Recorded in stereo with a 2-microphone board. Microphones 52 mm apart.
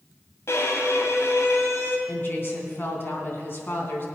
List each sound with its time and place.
0.5 s a violin: 65° left (ahead or behind), 2.0 m
2.1 s a woman speaking: 50° left (ahead or behind), 3 m